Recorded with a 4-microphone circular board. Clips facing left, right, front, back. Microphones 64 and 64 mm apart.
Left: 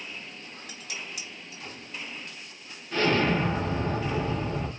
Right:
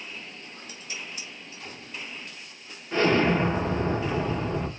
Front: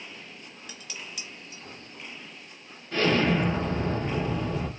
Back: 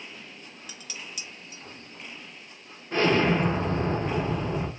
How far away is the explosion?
About 0.7 m.